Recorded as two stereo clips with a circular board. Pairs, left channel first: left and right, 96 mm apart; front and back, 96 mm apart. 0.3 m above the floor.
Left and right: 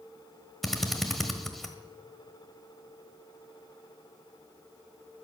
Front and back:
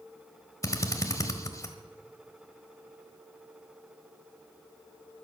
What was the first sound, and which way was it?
A drill, 5° left.